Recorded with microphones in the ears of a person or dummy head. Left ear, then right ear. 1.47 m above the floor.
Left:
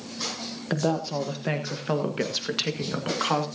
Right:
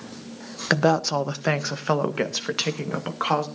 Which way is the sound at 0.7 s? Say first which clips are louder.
Right 7 dB; 60° right (ahead or behind).